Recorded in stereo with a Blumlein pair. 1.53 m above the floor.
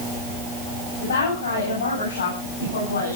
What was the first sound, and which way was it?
A woman speaking, 70° left.